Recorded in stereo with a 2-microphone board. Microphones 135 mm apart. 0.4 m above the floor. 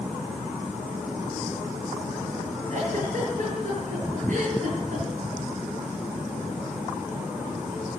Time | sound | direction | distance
2.7 | a giggle | 65° right (ahead or behind) | 8.5 m